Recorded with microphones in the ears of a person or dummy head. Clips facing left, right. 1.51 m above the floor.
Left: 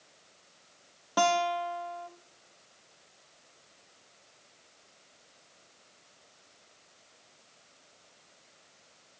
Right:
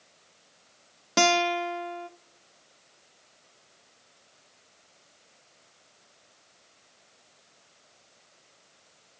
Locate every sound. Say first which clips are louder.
1.2 s a guitar: right 3 dB; 35° right (ahead or behind), 0.5 m